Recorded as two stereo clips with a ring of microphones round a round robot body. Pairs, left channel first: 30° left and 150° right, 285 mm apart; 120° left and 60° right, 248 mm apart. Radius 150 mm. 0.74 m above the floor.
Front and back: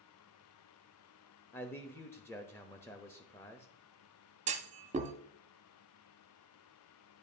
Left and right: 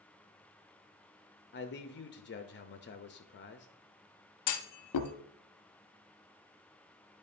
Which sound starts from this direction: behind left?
A clunk, at 4.5 s.